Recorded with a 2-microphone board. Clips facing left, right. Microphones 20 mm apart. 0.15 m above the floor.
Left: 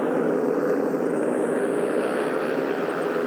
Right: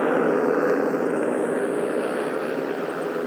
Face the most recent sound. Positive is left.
turn(degrees=15)  # may be behind; listen again after turning